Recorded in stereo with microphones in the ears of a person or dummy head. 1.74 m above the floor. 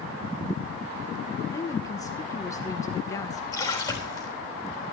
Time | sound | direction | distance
1.5 | a woman speaking | 15° left (ahead or behind) | 1.2 m
3.5 | a splash | 20° left (ahead or behind) | 3.5 m